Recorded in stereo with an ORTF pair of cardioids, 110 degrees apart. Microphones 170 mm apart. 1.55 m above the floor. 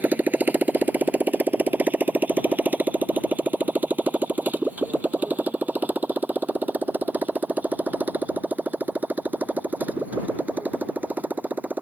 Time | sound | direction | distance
0.0 | a motorcycle | 10° right | ?